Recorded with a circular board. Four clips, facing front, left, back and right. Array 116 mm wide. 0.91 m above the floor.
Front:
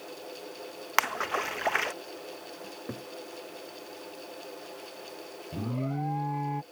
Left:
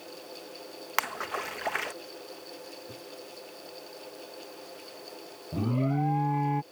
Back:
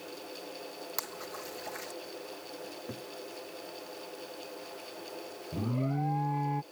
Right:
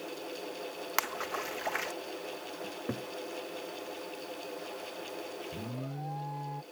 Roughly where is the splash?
Ahead.